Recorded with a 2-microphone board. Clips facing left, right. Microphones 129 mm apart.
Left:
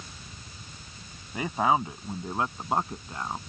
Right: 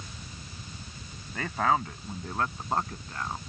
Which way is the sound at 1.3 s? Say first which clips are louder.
Left 2 dB; 15° left (ahead or behind).